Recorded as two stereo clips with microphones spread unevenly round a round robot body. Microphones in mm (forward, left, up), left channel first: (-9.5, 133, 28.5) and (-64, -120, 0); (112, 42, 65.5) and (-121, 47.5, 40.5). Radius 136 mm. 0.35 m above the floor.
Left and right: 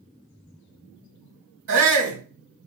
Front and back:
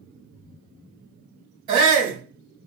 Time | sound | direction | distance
1.7 | a shout | 115° right | 2.5 m